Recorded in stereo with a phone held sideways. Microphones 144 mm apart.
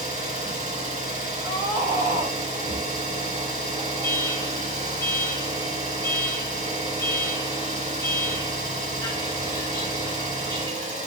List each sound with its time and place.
0.0 s an engine running: 55° right (ahead or behind), 1.8 m
1.4 s a scream: 80° right, 1.8 m
4.0 s an alarm: 25° left (ahead or behind), 1.1 m